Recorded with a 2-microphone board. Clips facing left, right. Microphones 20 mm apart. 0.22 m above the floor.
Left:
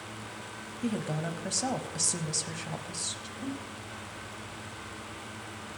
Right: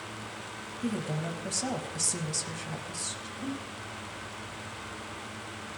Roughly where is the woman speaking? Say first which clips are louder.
Left 1 dB; centre.